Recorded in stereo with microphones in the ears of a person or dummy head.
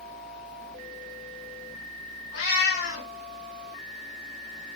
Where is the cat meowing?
65° left (ahead or behind), 2.5 m.